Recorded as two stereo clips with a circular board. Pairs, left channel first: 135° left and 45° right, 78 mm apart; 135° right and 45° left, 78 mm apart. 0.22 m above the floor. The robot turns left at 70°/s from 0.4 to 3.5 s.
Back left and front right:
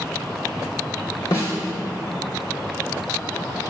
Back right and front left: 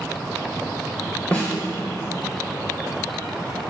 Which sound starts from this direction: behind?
A snare drum, at 1.3 s.